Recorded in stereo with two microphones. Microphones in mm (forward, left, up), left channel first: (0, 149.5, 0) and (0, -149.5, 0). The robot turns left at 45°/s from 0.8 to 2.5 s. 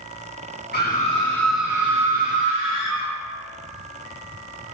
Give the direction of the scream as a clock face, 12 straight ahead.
11 o'clock.